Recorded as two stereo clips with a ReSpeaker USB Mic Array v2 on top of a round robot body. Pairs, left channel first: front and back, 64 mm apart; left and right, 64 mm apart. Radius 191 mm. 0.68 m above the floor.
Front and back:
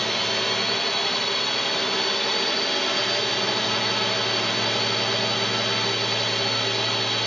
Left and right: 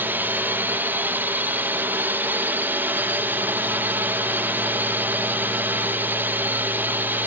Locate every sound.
0.0 s a drone: 85° right